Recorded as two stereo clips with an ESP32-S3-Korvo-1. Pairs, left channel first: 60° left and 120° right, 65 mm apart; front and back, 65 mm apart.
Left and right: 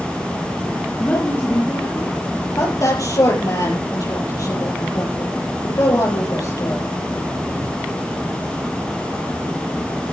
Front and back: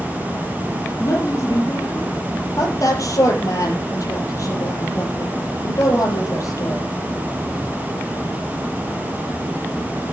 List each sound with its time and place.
1.0 s a woman speaking: straight ahead, 2.5 m; by 2.2 s 35° left, 2.5 m
2.6 s a woman speaking: 35° left, 6.5 m